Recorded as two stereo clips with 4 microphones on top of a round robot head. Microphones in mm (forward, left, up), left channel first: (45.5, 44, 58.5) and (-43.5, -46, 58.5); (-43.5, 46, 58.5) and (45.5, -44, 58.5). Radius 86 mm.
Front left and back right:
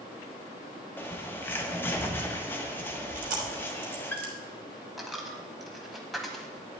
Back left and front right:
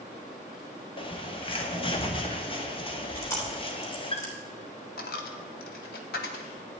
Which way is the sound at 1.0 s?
110° left.